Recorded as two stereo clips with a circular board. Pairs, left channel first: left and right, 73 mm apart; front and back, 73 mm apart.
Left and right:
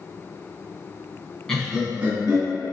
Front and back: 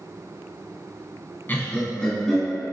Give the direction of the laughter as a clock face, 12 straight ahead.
11 o'clock.